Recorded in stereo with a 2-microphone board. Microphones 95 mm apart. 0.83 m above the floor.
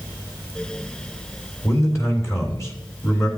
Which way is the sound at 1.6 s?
30° left (ahead or behind).